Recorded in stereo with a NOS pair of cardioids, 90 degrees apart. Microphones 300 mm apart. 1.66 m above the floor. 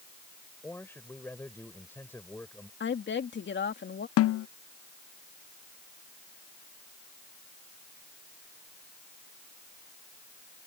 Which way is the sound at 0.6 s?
5° left.